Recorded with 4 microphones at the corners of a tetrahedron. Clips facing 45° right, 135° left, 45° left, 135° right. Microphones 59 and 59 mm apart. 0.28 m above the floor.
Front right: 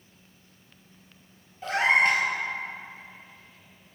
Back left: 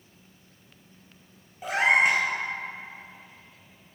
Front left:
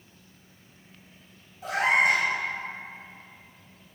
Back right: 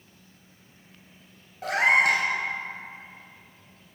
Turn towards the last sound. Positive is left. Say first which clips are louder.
# even, back right 2 dB
turn(degrees=-150)